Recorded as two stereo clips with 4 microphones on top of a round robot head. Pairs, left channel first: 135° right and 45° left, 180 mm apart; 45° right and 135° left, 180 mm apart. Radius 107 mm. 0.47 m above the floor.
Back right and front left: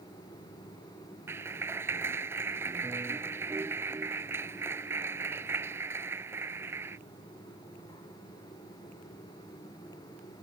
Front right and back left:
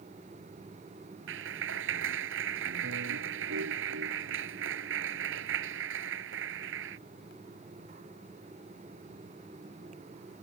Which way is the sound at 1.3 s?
120° left.